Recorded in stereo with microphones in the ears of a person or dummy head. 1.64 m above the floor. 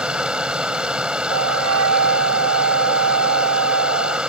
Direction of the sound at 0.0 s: 10° right (ahead or behind).